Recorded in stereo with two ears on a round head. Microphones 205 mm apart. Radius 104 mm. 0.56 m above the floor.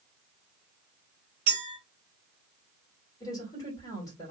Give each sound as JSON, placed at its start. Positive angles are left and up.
{"t": 1.5, "sound": "a clink", "side_deg": -35, "distance_m": 1.8}
{"t": 3.2, "sound": "a woman speaking", "side_deg": 15, "distance_m": 2.0}